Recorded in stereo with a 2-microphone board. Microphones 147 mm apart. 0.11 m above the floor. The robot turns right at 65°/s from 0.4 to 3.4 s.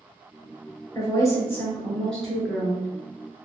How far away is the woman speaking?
About 1.1 m.